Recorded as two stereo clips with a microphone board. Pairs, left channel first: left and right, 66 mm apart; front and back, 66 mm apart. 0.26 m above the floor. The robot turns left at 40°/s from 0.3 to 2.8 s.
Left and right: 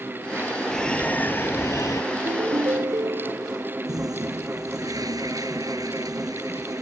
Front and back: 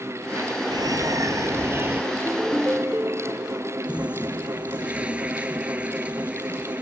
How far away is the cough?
No cough in this recording.